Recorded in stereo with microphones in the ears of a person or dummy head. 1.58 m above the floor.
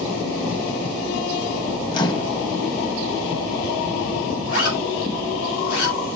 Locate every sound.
1.9 s a microwave: 25° left (ahead or behind), 1.2 m
4.5 s a zipper: 70° left (ahead or behind), 7 m